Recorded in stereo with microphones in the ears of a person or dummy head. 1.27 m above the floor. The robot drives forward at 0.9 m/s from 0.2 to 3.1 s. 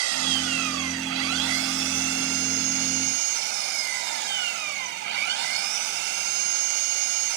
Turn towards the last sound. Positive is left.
turn(degrees=-60)  # may be behind; listen again after turning